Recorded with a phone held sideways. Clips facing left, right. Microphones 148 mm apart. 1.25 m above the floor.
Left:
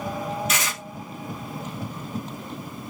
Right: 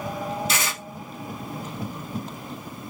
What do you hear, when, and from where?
0.5 s tearing paper: 30° right (ahead or behind), 1.9 m